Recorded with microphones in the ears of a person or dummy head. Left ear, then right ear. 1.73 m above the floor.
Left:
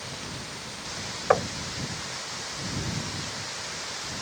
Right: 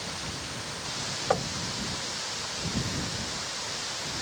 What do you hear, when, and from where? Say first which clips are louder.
1.3 s knocking: left 6 dB; 50° left (ahead or behind)